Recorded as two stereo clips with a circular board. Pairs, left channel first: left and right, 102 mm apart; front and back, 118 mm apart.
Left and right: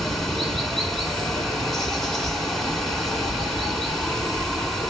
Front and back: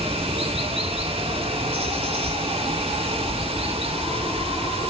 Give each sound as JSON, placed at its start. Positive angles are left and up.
{"t": 0.0, "sound": "running water", "azimuth_deg": 175, "distance_m": 1.6}